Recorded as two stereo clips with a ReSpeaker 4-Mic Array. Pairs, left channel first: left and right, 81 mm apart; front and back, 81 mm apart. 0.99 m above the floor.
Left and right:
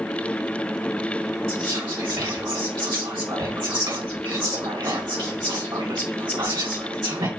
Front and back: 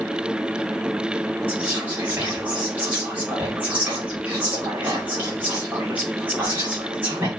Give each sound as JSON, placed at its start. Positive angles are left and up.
{"t": 1.5, "sound": "whispering", "azimuth_deg": -115, "distance_m": 2.5}